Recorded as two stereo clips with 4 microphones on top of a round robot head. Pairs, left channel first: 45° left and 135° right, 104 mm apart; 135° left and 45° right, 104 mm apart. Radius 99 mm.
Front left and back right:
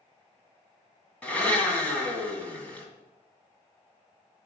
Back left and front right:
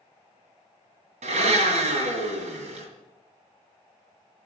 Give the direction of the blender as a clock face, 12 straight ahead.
1 o'clock.